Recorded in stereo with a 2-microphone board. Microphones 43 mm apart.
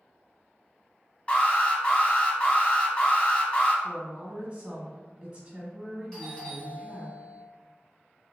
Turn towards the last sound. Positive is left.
turn(degrees=10)  # may be behind; listen again after turning